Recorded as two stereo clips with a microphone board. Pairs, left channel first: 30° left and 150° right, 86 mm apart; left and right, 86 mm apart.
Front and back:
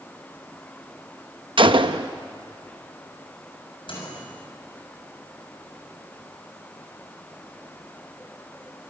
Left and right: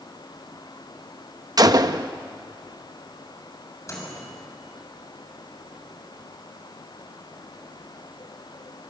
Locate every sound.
1.6 s a gunshot: 135° right, 0.8 m
3.9 s a microwave: 35° left, 7 m